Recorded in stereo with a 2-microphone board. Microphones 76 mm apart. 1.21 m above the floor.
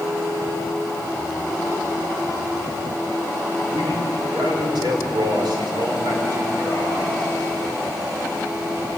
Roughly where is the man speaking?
Right.